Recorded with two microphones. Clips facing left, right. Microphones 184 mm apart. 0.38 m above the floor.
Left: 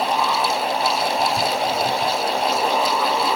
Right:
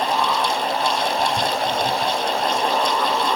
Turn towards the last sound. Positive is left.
No sound to turn to.